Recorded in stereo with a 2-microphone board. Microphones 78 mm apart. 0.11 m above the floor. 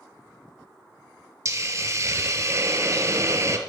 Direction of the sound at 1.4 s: 40° right (ahead or behind).